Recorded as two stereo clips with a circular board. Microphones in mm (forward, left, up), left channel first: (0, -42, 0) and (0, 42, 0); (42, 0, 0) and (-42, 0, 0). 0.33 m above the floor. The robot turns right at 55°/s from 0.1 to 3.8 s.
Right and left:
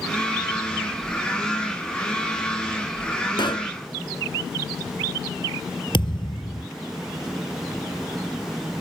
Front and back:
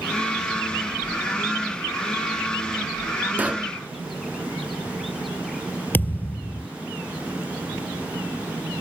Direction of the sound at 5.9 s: 70° right.